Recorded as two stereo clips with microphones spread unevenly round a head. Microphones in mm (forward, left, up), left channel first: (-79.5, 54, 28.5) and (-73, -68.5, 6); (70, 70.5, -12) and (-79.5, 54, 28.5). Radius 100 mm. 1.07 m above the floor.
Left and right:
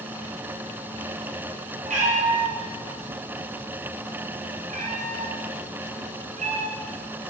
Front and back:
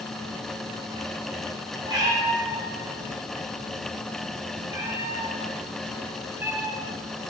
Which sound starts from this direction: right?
A cat meowing, at 1.9 s.